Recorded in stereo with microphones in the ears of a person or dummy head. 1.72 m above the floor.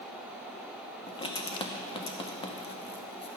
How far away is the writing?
About 0.8 m.